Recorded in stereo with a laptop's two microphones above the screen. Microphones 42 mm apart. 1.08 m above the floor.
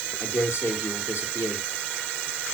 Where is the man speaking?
75° left (ahead or behind), 4 m.